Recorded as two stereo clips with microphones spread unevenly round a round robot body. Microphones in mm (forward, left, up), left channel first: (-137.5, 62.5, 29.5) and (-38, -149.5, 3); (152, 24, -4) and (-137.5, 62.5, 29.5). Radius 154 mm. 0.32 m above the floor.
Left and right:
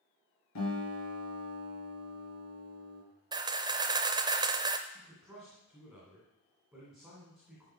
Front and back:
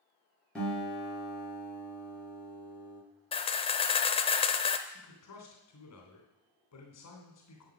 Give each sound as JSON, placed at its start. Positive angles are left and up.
{"t": 0.6, "sound": "a guitar", "azimuth_deg": 80, "distance_m": 6.5}
{"t": 3.3, "sound": "a camera shutter", "azimuth_deg": -35, "distance_m": 0.7}
{"t": 4.9, "sound": "a man speaking", "azimuth_deg": 20, "distance_m": 2.5}